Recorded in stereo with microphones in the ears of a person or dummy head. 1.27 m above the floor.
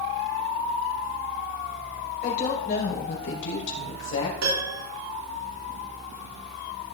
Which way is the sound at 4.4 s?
85° right.